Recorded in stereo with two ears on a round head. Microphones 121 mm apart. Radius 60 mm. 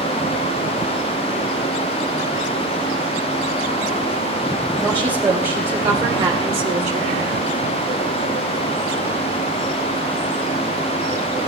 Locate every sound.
4.8 s a woman speaking: 5° right (ahead or behind), 3.5 m; by 7.3 s 70° right (ahead or behind), 2.5 m